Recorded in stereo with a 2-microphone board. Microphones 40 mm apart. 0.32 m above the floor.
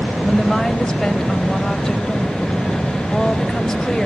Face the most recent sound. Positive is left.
turn(degrees=15)  # may be behind; listen again after turning